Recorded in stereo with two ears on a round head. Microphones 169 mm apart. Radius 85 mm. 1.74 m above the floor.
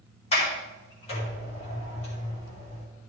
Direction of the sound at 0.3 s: 35° left (ahead or behind).